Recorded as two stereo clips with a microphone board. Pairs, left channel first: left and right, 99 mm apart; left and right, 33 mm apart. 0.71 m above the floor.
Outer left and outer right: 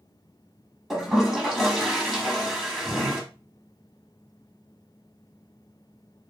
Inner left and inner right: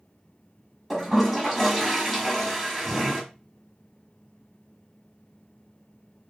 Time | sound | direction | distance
0.9 | a toilet flushing | centre (ahead or behind) | 0.8 m